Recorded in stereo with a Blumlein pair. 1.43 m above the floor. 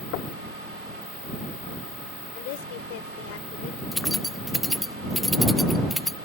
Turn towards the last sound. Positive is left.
turn(degrees=0)